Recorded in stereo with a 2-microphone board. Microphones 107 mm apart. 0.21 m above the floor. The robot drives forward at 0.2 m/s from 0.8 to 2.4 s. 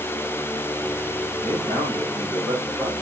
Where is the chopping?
I don't hear chopping.